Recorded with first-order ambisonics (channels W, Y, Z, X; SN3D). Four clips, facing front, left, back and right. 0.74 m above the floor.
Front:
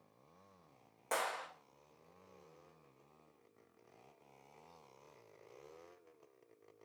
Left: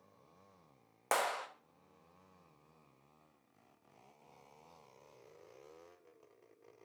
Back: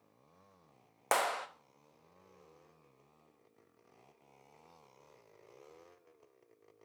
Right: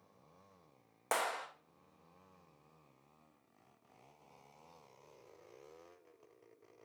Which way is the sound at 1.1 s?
170° left.